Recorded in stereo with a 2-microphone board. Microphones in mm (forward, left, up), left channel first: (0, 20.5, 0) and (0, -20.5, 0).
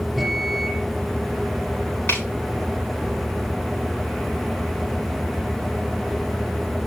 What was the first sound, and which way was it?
A microwave, 5° left (ahead or behind).